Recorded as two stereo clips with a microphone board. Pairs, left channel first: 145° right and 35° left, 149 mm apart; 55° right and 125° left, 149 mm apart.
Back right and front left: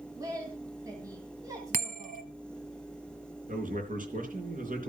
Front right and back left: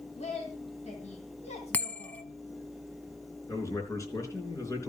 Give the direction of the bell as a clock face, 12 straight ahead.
11 o'clock.